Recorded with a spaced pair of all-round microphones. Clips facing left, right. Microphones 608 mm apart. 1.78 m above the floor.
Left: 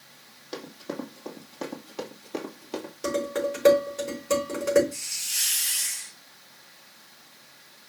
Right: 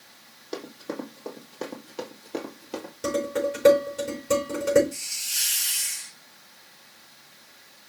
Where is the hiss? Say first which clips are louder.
Right 1 dB; 40° right (ahead or behind), 2.5 m.